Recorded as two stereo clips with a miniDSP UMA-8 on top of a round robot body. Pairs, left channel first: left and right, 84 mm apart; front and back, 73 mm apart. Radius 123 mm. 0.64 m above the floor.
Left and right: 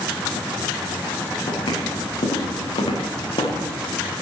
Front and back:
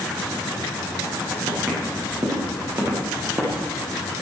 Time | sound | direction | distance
1.5 | footsteps | 120° left | 7 m